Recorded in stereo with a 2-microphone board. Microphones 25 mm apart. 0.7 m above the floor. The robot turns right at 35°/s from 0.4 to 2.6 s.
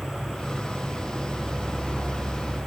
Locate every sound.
0.0 s an insect: 165° left, 2.5 m; by 2.7 s 120° right, 2.5 m